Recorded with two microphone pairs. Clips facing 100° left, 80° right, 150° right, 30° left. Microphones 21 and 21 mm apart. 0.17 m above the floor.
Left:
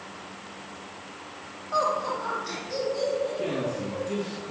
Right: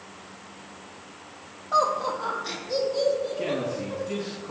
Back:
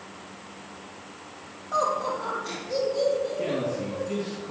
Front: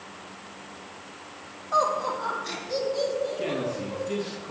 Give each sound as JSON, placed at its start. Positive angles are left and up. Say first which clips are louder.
{"t": 1.7, "sound": "laughter", "louder": "right 2 dB, front 1 dB", "azimuth_deg": -60, "distance_m": 4.5}
{"t": 3.4, "sound": "a man speaking", "louder": "right 1 dB, back 1 dB", "azimuth_deg": -65, "distance_m": 4.5}